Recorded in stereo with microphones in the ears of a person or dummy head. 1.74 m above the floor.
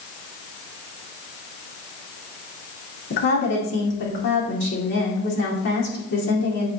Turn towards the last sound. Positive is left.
turn(degrees=50)  # may be behind; listen again after turning